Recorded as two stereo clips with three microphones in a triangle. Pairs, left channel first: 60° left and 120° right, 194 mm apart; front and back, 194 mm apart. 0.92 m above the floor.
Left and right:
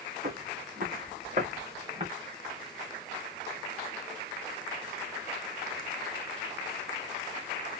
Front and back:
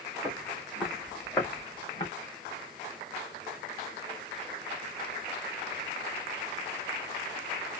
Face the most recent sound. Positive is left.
turn(degrees=-65)